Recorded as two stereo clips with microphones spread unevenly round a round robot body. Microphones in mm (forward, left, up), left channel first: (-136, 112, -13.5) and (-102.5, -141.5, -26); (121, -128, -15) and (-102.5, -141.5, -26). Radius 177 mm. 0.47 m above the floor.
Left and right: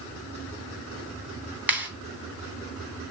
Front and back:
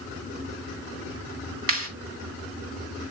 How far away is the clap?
About 3.5 m.